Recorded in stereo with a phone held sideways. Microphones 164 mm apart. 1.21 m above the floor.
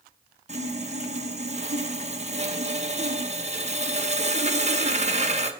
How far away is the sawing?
About 1.0 m.